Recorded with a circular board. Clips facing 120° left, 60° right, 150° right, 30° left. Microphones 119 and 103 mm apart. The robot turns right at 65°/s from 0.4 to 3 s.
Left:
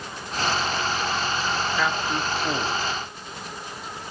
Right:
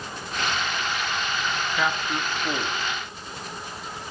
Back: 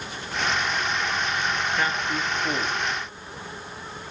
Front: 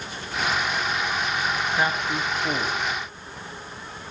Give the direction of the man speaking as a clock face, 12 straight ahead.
11 o'clock.